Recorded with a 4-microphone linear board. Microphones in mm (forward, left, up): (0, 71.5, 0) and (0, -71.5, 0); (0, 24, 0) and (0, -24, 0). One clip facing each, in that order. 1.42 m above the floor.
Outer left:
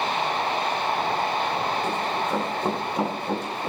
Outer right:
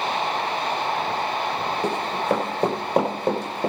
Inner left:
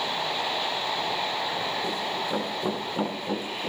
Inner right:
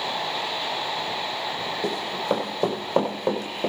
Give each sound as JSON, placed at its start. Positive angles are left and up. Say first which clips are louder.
{"t": 1.8, "sound": "running footsteps", "louder": "outer right 3 dB, inner right 3 dB", "side_deg": -70, "distance_m": 5.5}